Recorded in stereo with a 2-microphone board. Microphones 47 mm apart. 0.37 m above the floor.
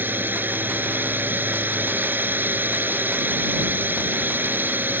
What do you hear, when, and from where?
0.0 s a drone: 45° right (ahead or behind)